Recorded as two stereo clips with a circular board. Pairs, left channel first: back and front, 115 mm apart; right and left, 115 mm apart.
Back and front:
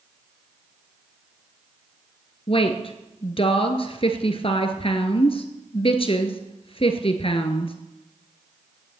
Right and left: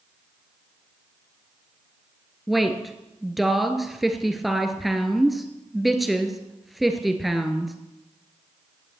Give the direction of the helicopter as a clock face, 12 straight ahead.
I don't hear a helicopter.